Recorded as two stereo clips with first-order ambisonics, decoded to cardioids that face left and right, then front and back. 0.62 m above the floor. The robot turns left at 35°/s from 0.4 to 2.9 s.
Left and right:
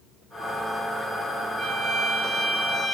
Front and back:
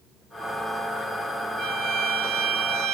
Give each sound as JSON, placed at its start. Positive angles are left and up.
{"t": 1.6, "sound": "a violin", "azimuth_deg": -145, "distance_m": 0.9}